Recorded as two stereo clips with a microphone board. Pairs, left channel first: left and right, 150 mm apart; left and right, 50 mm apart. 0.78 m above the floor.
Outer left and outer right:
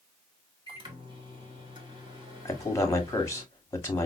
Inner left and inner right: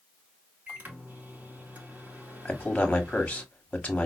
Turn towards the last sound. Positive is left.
turn(degrees=20)  # may be behind; listen again after turning